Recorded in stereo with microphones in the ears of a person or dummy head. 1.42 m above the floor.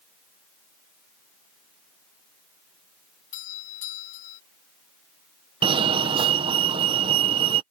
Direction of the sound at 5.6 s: 20° right (ahead or behind).